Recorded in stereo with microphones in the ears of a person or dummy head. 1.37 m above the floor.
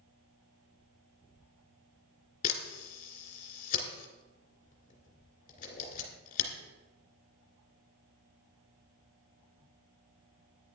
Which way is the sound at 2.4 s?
45° left (ahead or behind).